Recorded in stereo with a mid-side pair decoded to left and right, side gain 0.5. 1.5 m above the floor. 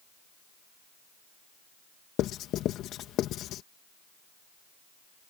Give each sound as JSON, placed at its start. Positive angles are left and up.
{"t": 2.2, "sound": "writing", "azimuth_deg": 70}